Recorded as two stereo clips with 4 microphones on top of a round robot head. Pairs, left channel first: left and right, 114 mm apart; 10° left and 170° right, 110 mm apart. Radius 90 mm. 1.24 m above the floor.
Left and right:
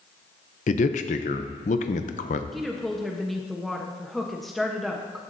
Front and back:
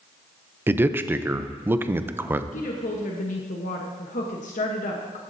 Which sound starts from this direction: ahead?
A woman speaking, at 2.5 s.